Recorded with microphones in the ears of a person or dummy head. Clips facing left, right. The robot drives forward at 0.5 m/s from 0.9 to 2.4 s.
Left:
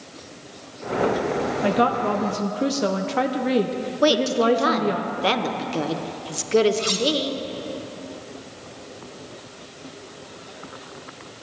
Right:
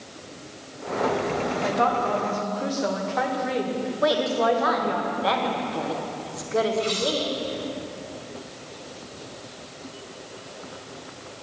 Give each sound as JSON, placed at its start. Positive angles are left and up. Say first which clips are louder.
{"t": 1.6, "sound": "a woman speaking", "louder": "left 4 dB", "side_deg": 35, "distance_m": 0.7}
{"t": 4.0, "sound": "a woman speaking", "louder": "left 4 dB", "side_deg": 40, "distance_m": 1.2}
{"t": 6.8, "sound": "cutlery clinking", "louder": "left 1 dB", "side_deg": 80, "distance_m": 1.5}